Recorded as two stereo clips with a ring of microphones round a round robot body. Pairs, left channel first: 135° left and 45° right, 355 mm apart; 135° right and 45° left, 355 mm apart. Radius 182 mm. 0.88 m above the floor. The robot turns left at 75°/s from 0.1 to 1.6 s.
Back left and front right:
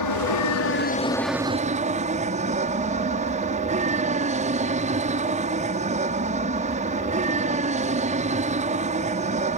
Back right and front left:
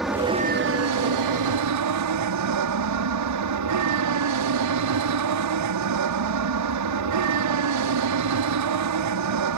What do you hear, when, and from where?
0.0 s an aircraft: 135° left; by 9.6 s 20° left